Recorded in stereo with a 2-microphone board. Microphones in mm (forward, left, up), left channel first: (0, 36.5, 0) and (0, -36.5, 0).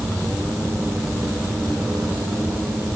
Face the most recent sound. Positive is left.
No sound to turn to.